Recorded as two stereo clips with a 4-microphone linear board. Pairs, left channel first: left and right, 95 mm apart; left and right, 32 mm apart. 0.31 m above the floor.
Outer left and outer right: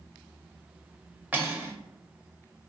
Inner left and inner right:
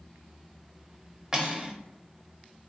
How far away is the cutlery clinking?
About 0.6 m.